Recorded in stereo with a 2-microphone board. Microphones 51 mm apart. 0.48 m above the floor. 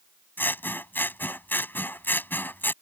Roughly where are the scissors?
Left.